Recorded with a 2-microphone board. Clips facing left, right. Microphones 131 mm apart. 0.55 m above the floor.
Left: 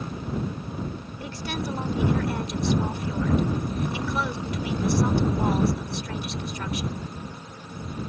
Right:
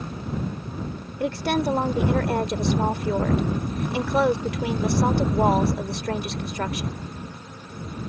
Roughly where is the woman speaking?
Right.